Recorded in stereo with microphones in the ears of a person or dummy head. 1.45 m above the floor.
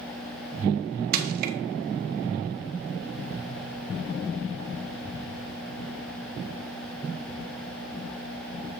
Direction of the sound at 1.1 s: 55° right (ahead or behind).